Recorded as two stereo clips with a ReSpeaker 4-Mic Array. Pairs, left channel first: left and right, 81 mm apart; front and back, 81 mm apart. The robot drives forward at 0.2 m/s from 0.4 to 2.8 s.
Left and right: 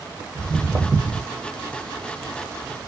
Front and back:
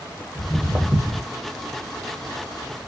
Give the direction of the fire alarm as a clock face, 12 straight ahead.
I don't hear a fire alarm.